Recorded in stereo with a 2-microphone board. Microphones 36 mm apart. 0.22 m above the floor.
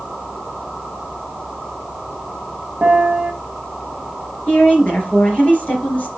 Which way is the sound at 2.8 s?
40° right (ahead or behind).